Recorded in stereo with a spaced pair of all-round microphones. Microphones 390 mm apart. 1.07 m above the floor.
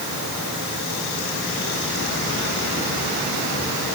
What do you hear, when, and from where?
Only background noise.